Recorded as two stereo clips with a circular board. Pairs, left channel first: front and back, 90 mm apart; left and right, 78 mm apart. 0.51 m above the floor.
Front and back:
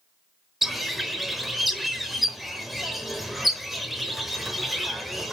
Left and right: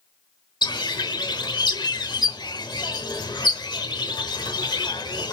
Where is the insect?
No insect in this recording.